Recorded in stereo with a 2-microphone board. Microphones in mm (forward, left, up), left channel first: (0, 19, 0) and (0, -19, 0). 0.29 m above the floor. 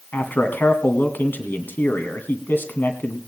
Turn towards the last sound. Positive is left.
turn(degrees=60)  # may be behind; listen again after turning